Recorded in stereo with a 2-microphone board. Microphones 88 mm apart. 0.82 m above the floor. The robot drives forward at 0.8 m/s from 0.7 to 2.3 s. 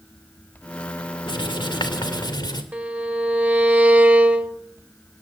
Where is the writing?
70° left (ahead or behind), 2.5 m; by 2.6 s 55° left (ahead or behind), 3 m.